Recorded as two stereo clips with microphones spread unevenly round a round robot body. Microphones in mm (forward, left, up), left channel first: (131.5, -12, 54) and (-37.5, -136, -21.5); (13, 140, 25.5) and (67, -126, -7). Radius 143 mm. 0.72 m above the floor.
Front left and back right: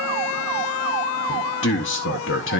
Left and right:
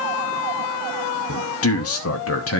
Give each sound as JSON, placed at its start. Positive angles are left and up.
{"t": 1.3, "sound": "a man speaking", "azimuth_deg": 80, "distance_m": 1.0}